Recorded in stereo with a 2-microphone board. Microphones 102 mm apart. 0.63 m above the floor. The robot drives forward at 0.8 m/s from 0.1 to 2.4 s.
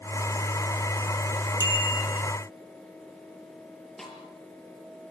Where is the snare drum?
5° left (ahead or behind), 5.5 m.